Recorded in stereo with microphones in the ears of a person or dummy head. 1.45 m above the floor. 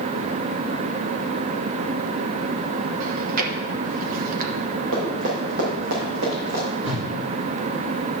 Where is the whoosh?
75° right (ahead or behind), 3 m.